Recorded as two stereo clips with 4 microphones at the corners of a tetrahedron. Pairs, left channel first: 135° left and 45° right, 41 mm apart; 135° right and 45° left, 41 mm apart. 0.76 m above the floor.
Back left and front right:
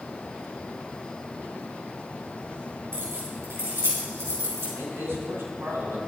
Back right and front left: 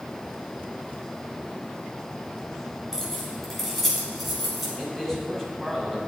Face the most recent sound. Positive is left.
turn(degrees=-55)